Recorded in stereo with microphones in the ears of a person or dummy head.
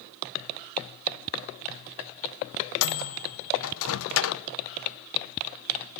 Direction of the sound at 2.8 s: 80° left.